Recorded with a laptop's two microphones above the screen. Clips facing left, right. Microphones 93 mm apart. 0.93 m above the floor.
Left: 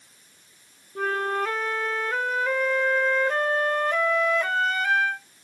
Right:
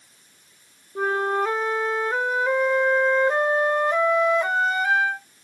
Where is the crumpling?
I don't hear crumpling.